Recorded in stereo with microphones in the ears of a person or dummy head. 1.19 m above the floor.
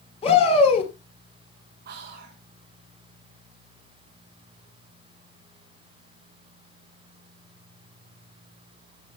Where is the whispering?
55° right (ahead or behind), 1.0 m.